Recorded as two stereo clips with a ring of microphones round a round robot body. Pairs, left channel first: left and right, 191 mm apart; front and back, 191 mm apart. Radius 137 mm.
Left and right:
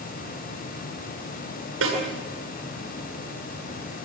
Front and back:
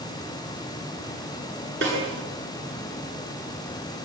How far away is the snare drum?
About 9 m.